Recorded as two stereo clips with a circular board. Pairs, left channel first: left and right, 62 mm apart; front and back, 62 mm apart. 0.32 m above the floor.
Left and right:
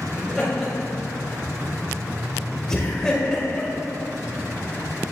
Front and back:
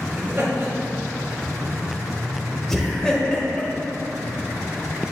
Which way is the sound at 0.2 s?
170° right.